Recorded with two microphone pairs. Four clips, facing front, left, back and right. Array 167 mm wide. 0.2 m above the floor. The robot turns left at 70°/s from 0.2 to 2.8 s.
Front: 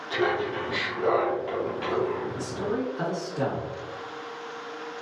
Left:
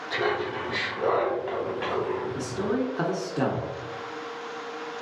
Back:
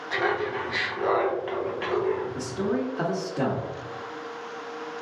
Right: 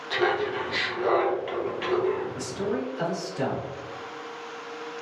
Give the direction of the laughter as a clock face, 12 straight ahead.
5 o'clock.